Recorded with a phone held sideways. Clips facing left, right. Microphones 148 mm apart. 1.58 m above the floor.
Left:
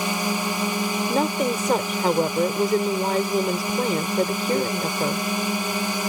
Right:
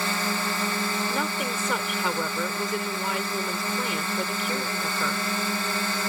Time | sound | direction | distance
0.0 | a drone | 15° left (ahead or behind) | ?
1.1 | a woman speaking | 40° left (ahead or behind) | ?